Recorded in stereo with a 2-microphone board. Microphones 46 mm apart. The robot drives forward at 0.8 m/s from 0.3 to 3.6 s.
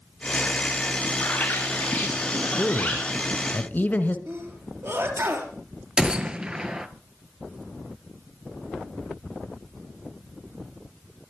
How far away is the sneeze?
About 3 m.